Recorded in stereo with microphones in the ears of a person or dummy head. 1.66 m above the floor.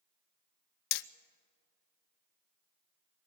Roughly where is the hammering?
Left.